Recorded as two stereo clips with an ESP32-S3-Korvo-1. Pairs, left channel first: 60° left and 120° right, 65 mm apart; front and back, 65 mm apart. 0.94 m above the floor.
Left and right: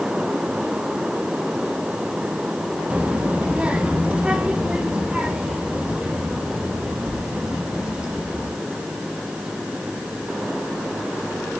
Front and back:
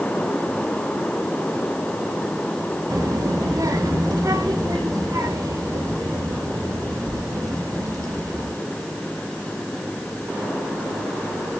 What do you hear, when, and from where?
2.9 s a child speaking: 170° left, 1.1 m; by 8.5 s 165° left, 5 m